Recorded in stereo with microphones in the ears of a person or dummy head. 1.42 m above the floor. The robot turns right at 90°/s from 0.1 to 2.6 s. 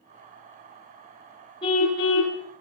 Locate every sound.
1.6 s a car horn: 25° left, 5 m; by 2.4 s 95° left, 5 m